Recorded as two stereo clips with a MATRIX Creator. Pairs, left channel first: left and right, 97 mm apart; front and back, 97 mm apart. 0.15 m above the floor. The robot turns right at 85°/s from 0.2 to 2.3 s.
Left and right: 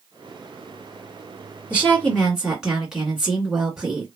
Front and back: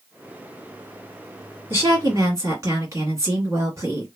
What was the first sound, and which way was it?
A woman speaking, 140° left.